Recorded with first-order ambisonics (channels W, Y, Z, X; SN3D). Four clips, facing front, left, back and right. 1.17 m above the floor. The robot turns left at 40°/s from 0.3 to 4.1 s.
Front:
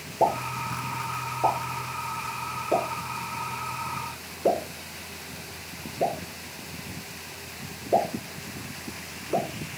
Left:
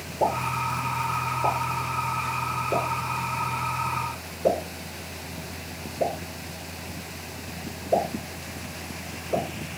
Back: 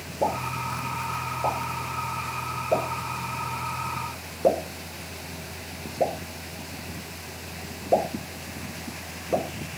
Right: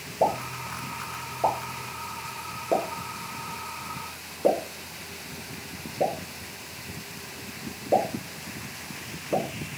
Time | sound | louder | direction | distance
0.2 | a pop | left 1 dB, front 2 dB | 10° left | 1.8 m